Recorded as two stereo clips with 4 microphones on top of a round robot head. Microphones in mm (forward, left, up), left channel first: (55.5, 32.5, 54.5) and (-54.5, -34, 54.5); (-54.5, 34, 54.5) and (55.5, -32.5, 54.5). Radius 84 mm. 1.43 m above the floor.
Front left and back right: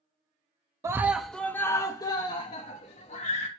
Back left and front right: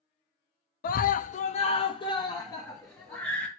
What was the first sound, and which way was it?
A scream, 145° left.